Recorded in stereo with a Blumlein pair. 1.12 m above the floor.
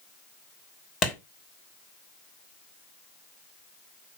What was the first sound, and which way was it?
A clap, 25° left.